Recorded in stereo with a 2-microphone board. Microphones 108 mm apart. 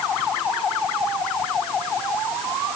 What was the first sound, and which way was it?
Only background noise.